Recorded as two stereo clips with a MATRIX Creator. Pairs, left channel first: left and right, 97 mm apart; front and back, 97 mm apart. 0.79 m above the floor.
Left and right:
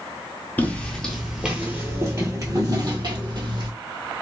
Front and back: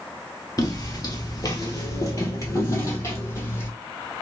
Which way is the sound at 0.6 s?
25° left.